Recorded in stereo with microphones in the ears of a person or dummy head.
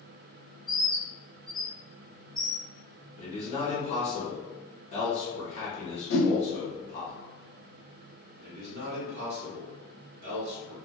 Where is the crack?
No crack in this recording.